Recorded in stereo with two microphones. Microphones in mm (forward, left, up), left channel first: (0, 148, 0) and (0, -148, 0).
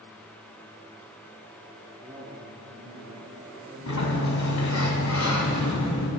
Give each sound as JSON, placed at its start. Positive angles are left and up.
{"t": 2.0, "sound": "a man speaking", "side_deg": -25, "distance_m": 1.2}
{"t": 3.9, "sound": "a sliding door", "side_deg": 60, "distance_m": 1.1}